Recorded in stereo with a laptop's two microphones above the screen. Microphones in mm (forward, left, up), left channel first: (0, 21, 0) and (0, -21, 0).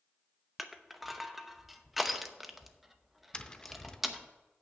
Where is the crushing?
Centre (ahead or behind), 0.8 m.